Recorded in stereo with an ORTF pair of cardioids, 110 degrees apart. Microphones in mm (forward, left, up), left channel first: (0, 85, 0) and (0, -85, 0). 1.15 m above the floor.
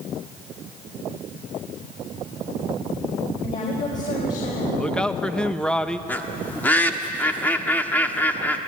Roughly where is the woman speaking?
Ahead left.